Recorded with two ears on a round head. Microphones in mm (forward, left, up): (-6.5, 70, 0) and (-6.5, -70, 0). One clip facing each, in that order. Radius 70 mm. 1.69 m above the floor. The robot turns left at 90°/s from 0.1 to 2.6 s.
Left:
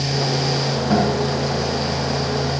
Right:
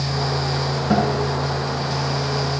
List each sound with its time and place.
0.9 s a guitar: 10° right (ahead or behind), 8.5 m; by 1.2 s 35° right (ahead or behind), 8.5 m